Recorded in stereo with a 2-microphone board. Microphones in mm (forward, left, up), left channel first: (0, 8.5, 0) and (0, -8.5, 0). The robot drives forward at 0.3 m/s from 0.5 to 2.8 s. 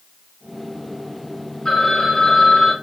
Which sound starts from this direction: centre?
A phone ringing, at 1.6 s.